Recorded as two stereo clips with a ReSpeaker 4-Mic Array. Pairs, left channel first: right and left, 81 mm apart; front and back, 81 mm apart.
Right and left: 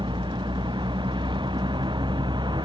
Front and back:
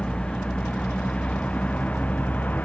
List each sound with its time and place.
0.0 s a vehicle: 80° left; by 2.6 s 70° left